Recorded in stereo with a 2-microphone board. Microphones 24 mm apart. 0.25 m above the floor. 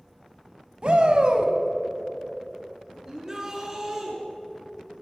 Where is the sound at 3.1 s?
20° right (ahead or behind), 3 m.